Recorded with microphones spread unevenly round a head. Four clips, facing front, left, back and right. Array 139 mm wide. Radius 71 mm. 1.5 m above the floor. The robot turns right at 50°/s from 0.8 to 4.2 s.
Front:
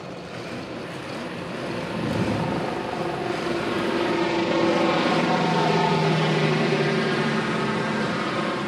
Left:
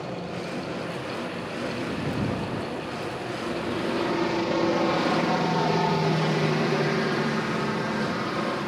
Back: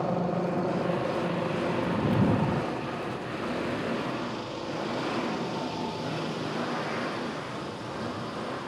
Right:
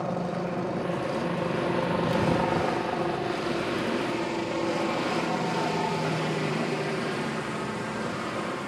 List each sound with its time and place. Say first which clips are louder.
0.0 s a helicopter: right 3 dB, back 7 dB; 150° right; by 8.7 s 20° left